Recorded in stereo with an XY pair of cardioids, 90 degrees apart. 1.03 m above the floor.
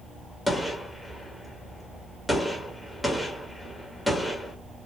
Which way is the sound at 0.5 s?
5° left.